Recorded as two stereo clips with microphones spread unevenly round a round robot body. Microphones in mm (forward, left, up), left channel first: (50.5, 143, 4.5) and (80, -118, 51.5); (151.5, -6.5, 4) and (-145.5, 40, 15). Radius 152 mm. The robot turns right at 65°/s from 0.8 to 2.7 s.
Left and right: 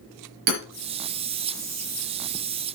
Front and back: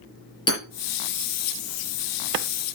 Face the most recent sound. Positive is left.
turn(degrees=40)